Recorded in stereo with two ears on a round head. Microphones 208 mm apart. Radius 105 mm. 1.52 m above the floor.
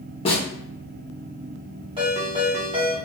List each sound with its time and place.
0.2 s a snare drum: 25° left (ahead or behind), 0.9 m
2.0 s a ringtone: 25° right (ahead or behind), 1.4 m